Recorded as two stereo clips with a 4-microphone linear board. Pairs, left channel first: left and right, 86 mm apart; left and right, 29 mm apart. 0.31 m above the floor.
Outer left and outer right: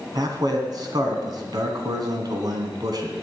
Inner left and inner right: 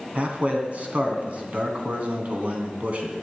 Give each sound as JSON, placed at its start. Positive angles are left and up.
{"t": 0.1, "sound": "a man speaking", "side_deg": -55, "distance_m": 2.5}